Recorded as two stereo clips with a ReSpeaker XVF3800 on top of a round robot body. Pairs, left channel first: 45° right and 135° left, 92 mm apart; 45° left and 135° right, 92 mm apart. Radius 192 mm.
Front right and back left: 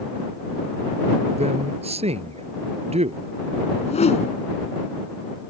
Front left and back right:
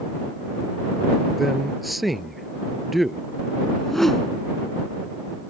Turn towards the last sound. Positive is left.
turn(degrees=-40)